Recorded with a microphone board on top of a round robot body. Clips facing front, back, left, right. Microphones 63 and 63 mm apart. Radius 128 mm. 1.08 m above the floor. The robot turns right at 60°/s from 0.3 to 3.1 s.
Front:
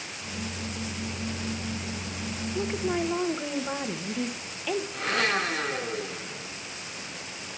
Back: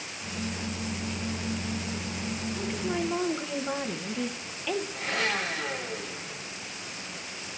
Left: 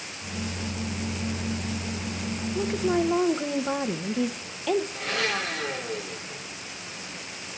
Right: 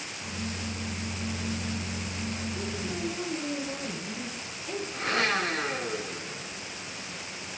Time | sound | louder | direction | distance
2.5 | a woman speaking | front 4 dB, left 9 dB | 50° left | 1.0 m
4.9 | a blender | front 6 dB, right 1 dB | 35° right | 2.5 m